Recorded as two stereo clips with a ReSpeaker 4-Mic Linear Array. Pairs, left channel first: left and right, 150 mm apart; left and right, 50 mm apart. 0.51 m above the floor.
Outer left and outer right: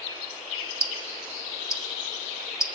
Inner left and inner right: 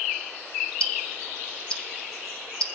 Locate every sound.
0.8 s ticking: 20° left (ahead or behind), 0.7 m